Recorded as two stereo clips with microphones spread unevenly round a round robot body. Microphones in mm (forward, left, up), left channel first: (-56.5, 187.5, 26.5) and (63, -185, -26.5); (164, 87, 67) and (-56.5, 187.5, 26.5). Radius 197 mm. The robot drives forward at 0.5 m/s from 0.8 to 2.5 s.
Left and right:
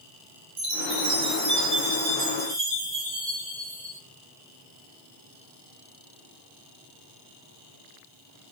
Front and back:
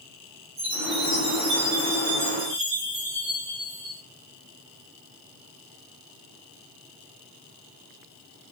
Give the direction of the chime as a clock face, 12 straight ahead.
4 o'clock.